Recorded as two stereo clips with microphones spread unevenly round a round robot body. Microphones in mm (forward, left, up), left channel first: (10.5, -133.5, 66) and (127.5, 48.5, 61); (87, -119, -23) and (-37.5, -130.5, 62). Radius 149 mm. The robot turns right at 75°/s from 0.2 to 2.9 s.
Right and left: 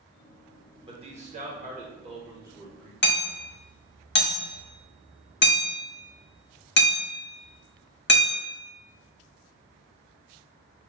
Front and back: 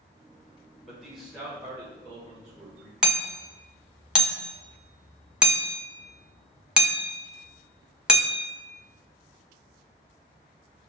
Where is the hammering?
85° right, 1.1 m.